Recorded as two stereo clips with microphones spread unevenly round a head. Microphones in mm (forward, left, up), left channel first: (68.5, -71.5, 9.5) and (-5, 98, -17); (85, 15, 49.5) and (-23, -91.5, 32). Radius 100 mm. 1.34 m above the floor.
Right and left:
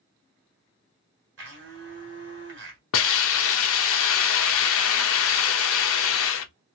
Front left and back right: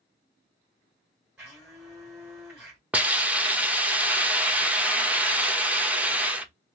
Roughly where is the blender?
Behind left.